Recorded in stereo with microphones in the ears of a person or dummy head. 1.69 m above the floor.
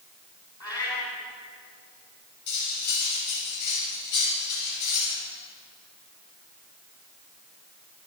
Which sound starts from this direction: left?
Cutlery clinking, at 2.5 s.